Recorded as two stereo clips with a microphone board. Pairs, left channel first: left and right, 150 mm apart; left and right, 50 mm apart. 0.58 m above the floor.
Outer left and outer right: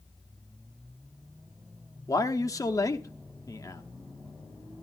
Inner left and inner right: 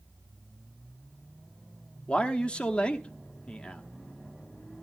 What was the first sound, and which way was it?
A man speaking, 20° left (ahead or behind).